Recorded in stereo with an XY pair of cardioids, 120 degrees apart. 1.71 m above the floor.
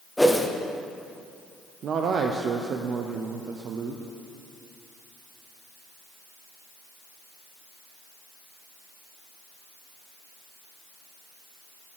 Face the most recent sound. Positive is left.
turn(degrees=-50)